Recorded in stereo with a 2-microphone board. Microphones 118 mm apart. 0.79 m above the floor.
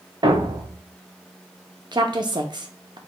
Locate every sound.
0.2 s a thud: 40° right (ahead or behind), 0.8 m
1.9 s a woman speaking: 40° right (ahead or behind), 0.7 m